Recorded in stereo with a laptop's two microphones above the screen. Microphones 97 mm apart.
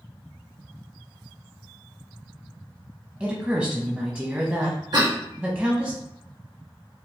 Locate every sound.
3.2 s a woman speaking: 15° right (ahead or behind), 0.8 m
4.9 s a cough: 50° right (ahead or behind), 1.5 m